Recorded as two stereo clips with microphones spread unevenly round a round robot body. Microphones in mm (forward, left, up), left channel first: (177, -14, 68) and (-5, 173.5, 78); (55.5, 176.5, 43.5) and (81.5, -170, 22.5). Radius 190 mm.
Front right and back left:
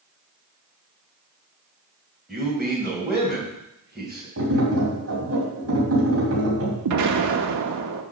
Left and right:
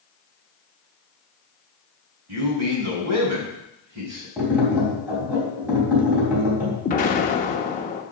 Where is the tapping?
170° right, 3.5 m.